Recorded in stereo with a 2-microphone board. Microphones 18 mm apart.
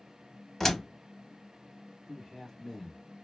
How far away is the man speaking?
About 1.1 m.